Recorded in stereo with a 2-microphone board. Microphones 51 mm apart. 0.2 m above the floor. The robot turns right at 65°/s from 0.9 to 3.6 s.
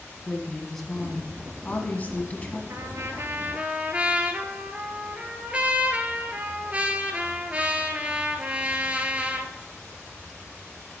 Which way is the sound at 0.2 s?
15° left.